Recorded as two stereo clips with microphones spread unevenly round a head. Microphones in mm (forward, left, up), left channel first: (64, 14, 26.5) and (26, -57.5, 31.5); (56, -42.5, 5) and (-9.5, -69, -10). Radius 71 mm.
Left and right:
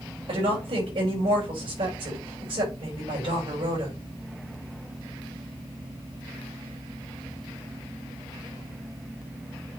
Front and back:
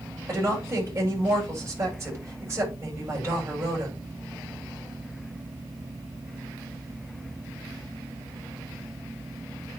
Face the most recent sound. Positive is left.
turn(degrees=-105)